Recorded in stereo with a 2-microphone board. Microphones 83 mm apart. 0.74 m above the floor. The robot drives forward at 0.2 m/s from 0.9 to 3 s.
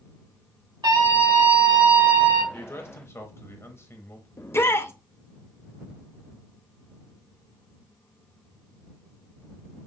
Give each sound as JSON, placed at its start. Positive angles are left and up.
{"t": 0.8, "sound": "a scream", "side_deg": -75, "distance_m": 3.0}
{"t": 2.5, "sound": "a man speaking", "side_deg": 30, "distance_m": 0.9}
{"t": 4.4, "sound": "a shout", "side_deg": 30, "distance_m": 0.6}